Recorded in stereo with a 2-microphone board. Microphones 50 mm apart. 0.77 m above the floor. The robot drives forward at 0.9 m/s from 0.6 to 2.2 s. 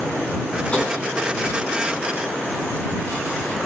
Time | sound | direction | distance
0.7 | tapping | 25° left (ahead or behind) | 4.5 m